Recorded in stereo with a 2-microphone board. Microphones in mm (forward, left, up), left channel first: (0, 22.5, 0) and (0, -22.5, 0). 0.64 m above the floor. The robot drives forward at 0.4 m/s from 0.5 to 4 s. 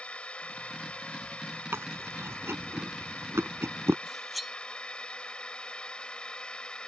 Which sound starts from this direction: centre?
Cutlery clinking, at 4.1 s.